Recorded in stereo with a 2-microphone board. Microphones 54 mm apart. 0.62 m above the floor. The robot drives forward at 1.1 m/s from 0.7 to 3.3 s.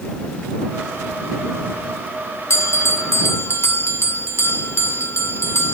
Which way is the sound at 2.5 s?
60° left (ahead or behind).